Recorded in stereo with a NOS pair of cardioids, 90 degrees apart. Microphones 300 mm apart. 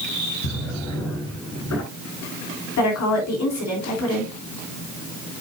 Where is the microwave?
I don't hear a microwave.